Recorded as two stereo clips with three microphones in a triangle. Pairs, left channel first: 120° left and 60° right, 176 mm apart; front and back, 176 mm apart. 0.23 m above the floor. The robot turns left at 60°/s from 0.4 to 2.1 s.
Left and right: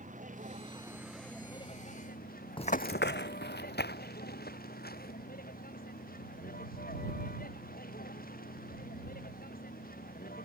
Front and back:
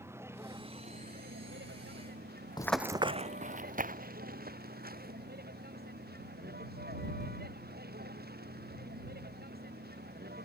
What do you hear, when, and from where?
0.0 s a vehicle: 105° right; by 10.5 s 155° left
2.6 s running footsteps: 65° left; by 5.1 s 150° left